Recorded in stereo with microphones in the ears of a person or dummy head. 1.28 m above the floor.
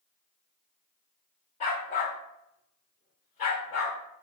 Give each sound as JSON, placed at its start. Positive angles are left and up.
{"t": 1.6, "sound": "a dog barking", "side_deg": 30, "distance_m": 0.8}